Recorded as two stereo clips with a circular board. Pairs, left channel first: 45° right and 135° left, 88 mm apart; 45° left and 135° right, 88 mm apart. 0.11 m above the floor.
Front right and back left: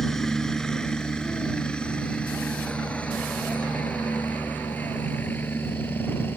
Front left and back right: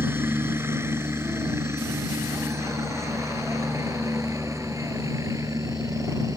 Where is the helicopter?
125° right; by 6.4 s 105° right.